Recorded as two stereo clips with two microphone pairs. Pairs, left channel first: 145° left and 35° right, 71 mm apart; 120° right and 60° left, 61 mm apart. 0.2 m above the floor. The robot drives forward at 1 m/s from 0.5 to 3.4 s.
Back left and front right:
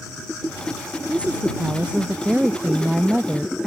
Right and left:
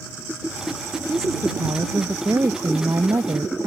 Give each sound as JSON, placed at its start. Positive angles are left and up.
{"t": 1.1, "sound": "a woman speaking", "azimuth_deg": 35}